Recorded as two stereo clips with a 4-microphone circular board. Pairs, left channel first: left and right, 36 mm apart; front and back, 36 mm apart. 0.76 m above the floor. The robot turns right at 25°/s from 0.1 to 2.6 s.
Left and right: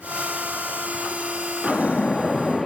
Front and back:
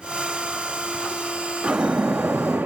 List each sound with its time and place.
1.6 s a splash: 150° left, 0.6 m; by 2.7 s 175° left, 0.6 m